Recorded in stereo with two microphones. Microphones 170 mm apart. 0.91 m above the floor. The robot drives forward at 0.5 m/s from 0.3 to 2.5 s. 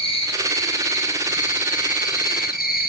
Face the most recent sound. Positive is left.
turn(degrees=60)  # may be behind; listen again after turning